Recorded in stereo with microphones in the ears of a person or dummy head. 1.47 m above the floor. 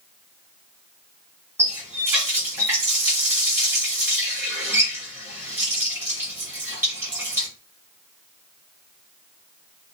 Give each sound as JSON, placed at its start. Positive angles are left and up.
{"t": 1.6, "sound": "a running tap", "side_deg": -10, "distance_m": 1.5}